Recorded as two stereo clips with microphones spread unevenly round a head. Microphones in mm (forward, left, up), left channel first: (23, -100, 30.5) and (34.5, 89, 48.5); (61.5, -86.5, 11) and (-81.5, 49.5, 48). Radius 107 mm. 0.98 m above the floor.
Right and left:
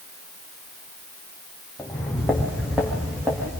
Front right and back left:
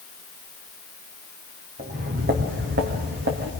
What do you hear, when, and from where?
1.8 s footsteps: straight behind, 3.5 m; by 3.5 s 170° left, 5 m